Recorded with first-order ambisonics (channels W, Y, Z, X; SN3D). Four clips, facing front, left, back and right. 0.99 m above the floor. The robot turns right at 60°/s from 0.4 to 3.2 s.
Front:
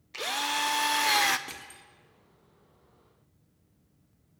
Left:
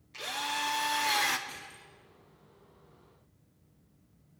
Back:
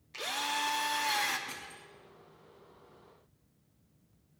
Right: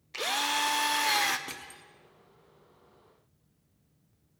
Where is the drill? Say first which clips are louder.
Right 5 dB, front 4 dB; 60° right, 0.5 m; by 1.4 s 5° right, 0.5 m.